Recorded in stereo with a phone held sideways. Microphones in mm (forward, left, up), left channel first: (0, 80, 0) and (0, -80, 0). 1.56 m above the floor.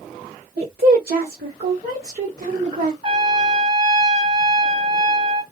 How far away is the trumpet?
About 2 m.